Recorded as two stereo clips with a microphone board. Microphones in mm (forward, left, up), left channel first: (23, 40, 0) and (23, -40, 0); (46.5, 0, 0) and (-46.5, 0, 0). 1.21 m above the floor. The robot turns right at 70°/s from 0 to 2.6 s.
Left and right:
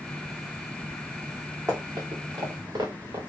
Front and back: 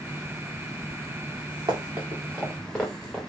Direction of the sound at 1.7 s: 145° right.